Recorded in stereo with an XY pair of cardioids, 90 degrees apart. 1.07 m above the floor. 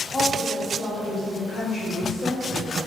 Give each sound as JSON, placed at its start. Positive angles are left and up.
{"t": 0.1, "sound": "a woman speaking", "azimuth_deg": 40, "distance_m": 2.5}